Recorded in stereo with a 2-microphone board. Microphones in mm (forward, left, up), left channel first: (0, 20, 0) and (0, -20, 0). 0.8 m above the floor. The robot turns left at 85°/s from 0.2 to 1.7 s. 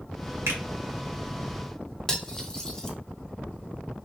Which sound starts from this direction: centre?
Cutlery clinking, at 2.1 s.